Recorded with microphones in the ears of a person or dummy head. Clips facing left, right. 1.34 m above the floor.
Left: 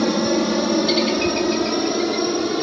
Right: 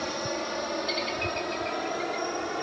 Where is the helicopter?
65° left (ahead or behind); by 2.6 s 50° left (ahead or behind).